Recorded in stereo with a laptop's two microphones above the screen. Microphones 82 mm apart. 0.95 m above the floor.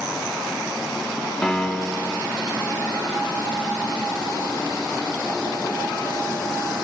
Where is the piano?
10° left (ahead or behind), 0.6 m.